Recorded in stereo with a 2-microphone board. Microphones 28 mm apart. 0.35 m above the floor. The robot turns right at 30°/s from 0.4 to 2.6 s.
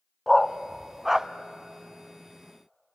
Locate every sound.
0.3 s a dog barking: 10° left (ahead or behind), 0.6 m; by 1.3 s 20° right (ahead or behind), 0.6 m